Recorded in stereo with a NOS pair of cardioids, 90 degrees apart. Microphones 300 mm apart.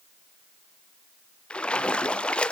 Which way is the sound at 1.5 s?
5° left.